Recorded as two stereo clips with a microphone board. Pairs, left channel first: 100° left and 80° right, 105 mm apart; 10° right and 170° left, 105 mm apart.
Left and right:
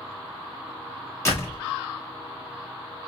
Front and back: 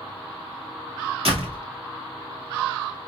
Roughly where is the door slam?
Behind.